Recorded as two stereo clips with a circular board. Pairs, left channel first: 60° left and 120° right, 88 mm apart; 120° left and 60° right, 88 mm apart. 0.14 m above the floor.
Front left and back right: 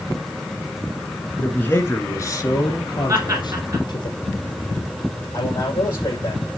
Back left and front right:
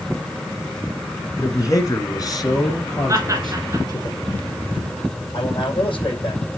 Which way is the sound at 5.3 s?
110° left.